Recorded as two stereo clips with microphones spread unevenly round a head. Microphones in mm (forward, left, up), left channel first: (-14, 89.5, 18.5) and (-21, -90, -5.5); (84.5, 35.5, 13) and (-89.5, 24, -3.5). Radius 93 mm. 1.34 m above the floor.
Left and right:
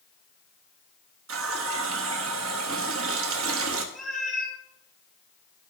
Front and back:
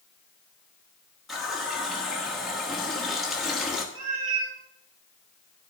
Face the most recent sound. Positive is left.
turn(degrees=175)